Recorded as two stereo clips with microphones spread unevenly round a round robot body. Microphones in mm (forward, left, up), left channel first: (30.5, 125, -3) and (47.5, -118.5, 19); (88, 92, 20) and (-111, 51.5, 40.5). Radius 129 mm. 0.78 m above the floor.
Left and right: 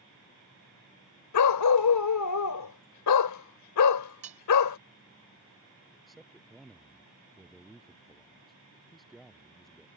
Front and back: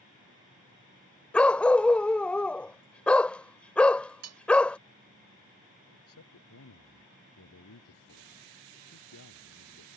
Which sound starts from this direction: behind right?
Cutlery clinking, at 4.2 s.